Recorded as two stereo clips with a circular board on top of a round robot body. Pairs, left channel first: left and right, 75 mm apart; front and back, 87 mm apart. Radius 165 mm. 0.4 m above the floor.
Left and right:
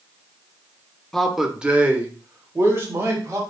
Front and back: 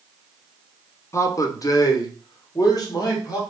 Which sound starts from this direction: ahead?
A man speaking, at 1.1 s.